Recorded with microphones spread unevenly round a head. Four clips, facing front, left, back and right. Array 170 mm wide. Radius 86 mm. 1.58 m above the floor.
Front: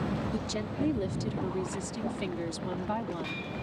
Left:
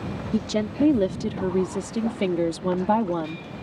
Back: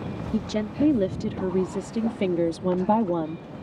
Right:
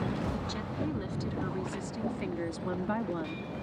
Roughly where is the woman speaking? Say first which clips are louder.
Left 11 dB, back 7 dB; behind left.